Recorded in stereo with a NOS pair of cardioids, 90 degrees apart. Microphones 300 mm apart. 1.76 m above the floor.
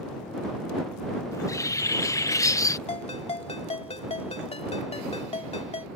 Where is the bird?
10° left.